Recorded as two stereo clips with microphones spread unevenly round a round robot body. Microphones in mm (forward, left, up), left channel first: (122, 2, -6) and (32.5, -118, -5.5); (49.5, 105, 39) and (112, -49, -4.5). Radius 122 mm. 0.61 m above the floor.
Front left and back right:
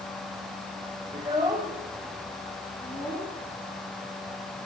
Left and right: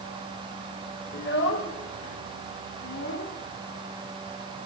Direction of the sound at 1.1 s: 170° left.